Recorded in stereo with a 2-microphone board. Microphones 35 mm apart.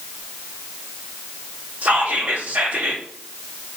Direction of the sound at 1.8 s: 55° right (ahead or behind).